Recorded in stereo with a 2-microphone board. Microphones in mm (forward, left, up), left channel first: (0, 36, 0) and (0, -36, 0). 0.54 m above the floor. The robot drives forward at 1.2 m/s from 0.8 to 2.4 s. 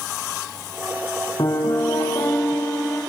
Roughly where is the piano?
Left.